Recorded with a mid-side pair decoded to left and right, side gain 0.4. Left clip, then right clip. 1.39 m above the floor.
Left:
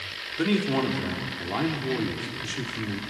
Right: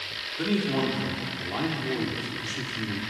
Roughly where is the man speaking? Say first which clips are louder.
Left 2 dB; ahead left.